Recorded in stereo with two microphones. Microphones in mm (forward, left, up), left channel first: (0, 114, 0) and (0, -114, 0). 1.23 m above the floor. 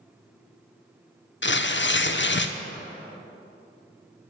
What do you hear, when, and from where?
1.4 s tearing paper: 55° left (ahead or behind), 0.5 m